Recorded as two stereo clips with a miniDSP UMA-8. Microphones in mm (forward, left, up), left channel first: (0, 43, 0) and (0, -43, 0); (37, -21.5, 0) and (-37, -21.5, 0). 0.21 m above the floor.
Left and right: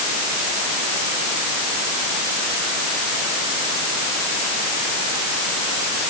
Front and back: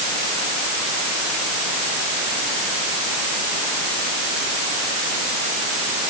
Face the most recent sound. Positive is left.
No sound to turn to.